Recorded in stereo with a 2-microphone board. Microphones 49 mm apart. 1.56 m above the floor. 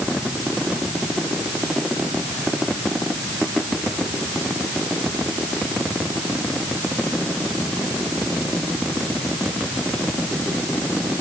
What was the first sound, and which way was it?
Only background noise.